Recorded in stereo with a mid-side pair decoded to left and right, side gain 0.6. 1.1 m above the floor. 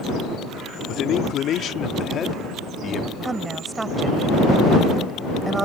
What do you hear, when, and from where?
0.9 s a man speaking: 55° left; by 3.1 s 35° left
3.2 s a woman speaking: 20° right